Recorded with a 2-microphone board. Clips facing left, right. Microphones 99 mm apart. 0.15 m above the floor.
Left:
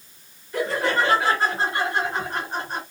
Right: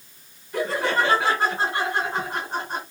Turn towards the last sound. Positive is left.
turn(degrees=-20)  # may be behind; listen again after turning